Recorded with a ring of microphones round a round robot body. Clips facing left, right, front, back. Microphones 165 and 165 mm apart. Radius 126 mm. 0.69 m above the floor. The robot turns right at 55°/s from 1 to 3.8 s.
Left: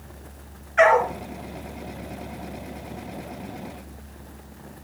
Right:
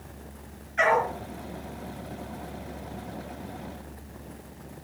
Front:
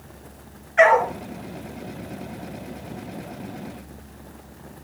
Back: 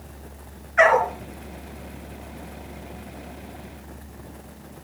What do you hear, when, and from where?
0.8 s a dog barking: 65° left, 4 m; by 1.1 s 70° left, 4 m